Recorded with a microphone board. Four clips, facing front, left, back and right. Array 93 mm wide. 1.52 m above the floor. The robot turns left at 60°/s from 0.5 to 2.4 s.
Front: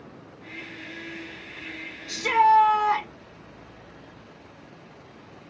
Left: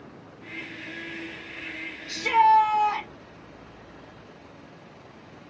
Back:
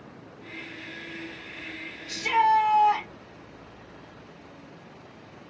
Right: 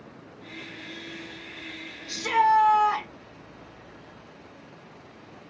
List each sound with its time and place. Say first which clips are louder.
2.1 s a shout: left 3 dB, front 3 dB; straight ahead, 2.5 m; by 3.1 s 20° right, 2.5 m